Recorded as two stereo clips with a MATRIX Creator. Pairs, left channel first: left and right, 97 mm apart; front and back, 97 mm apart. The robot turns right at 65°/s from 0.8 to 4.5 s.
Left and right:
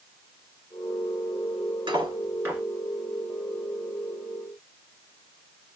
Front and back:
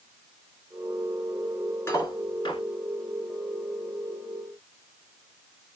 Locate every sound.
1.9 s cutlery clinking: 60° right, 1.7 m; by 2.6 s 15° right, 1.7 m